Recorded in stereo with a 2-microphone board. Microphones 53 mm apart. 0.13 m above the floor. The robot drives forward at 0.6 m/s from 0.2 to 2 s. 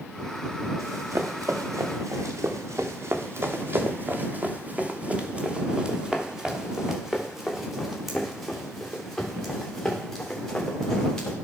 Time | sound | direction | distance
0.8 | running footsteps | 65° right (ahead or behind) | 2.5 m